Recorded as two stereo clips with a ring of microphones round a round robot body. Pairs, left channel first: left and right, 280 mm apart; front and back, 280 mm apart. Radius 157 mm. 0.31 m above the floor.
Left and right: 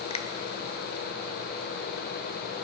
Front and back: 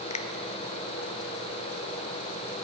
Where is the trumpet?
No trumpet in this recording.